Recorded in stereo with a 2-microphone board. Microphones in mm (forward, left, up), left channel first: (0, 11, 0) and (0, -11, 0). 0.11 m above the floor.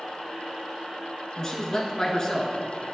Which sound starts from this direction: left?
A man speaking, at 1.4 s.